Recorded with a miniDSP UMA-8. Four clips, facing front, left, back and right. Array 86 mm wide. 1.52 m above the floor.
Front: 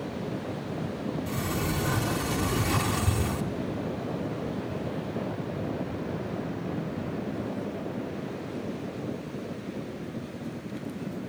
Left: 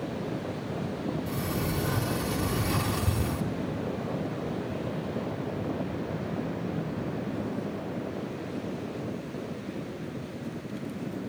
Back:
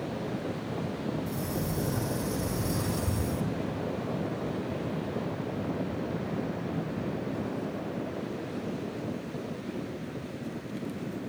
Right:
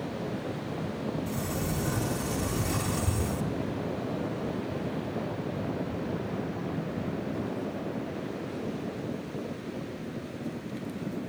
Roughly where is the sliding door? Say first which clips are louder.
Left 1 dB, front 2 dB; ahead.